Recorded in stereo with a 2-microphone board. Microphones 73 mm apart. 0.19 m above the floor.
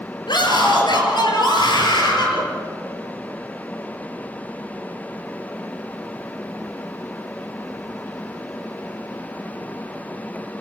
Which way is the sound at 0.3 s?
70° left (ahead or behind).